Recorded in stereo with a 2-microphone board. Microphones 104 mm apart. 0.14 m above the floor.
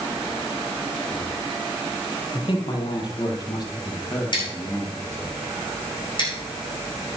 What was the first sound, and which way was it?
A man speaking, 50° left (ahead or behind).